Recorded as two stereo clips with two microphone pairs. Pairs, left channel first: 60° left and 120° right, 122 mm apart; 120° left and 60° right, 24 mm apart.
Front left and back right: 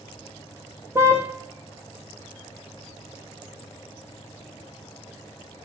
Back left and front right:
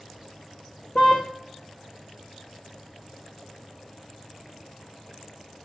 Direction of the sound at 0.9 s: 170° left.